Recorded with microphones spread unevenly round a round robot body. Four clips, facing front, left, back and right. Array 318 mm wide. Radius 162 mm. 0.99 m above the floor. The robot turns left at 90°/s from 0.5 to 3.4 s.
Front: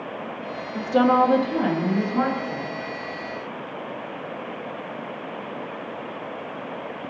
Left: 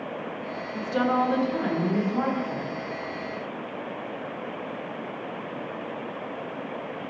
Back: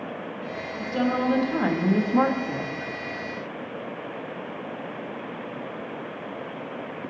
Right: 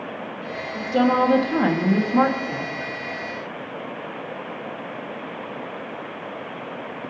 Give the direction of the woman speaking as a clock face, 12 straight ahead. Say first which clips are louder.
Right 5 dB, front 8 dB; 12 o'clock.